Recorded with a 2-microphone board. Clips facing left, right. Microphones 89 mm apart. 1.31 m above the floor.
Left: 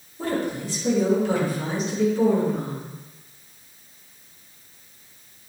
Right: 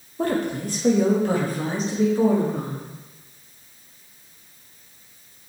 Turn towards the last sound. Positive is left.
turn(degrees=-25)  # may be behind; listen again after turning